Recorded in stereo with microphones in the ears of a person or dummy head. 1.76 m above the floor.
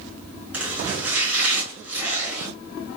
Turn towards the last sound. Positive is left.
turn(degrees=0)  # may be behind; listen again after turning